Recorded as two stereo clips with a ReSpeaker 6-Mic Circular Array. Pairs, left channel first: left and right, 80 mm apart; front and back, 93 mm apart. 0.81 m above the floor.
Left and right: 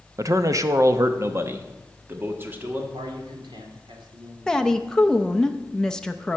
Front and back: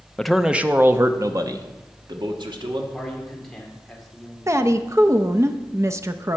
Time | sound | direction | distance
0.2 | a man speaking | 80° right | 0.6 m
2.9 | a man speaking | 85° right | 2.5 m
4.5 | a woman speaking | 165° left | 0.5 m